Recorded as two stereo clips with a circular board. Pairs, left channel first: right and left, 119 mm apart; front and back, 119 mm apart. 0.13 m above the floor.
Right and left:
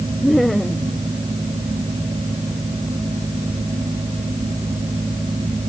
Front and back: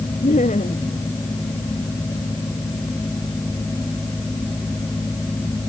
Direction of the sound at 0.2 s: Straight ahead.